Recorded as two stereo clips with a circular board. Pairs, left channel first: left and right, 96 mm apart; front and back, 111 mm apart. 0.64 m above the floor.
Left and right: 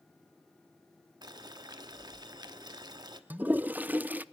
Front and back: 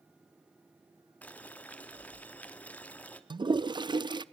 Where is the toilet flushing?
155° right, 0.5 m.